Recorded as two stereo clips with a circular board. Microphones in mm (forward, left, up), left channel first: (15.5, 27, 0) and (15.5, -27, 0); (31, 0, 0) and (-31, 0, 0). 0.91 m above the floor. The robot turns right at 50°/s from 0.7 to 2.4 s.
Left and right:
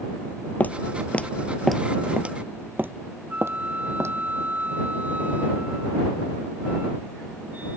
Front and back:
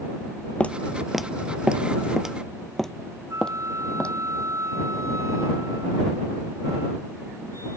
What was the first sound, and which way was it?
Footsteps, 55° left.